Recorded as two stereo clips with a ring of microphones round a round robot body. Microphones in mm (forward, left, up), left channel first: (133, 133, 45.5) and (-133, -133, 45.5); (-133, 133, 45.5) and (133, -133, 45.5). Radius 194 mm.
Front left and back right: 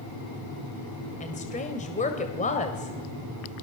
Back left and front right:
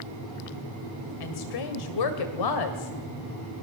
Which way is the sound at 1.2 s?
115° left.